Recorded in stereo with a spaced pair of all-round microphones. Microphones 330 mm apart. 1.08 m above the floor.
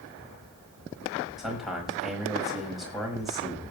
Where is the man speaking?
Centre (ahead or behind), 5.5 m.